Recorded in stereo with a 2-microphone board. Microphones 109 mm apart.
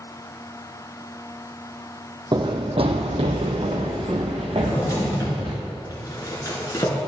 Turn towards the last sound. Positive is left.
turn(degrees=35)  # may be behind; listen again after turning